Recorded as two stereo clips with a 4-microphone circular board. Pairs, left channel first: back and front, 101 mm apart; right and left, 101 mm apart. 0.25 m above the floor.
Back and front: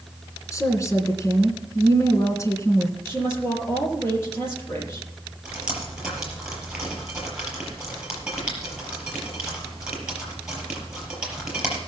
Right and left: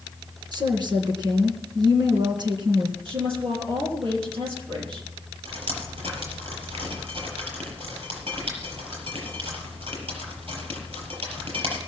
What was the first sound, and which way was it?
A woman speaking, 125° left.